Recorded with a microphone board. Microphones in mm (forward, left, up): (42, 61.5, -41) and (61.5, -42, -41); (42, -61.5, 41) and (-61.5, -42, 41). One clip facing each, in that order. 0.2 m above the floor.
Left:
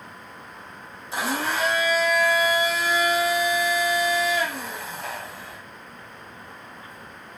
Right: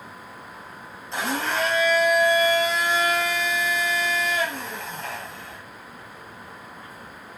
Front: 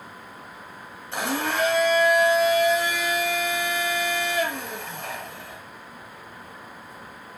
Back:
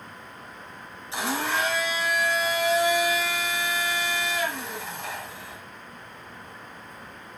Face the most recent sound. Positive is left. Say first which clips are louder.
# even, front 1 dB
turn(degrees=15)